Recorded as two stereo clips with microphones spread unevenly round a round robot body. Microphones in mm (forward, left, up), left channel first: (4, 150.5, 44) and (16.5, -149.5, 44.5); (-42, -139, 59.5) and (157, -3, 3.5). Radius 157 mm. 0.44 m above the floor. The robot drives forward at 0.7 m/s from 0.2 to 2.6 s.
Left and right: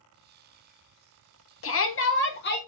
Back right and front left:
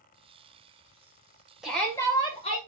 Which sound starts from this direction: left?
A shout, at 1.6 s.